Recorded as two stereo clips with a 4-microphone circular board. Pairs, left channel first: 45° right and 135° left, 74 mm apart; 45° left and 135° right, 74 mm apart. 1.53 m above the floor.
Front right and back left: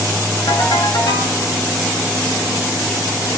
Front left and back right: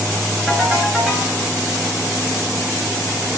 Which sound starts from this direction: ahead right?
A ringtone, at 0.5 s.